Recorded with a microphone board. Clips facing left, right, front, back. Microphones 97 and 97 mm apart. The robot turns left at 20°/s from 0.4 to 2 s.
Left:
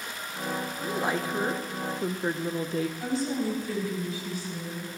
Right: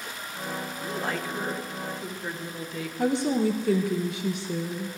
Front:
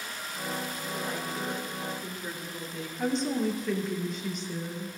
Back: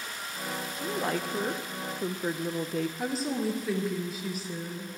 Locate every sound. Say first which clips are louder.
0.8 s a woman speaking: left 2 dB, back 4 dB; 170° left, 1.1 m; by 2.9 s 145° left, 1.1 m
3.0 s a woman speaking: right 5 dB, front 2 dB; 95° right, 1.6 m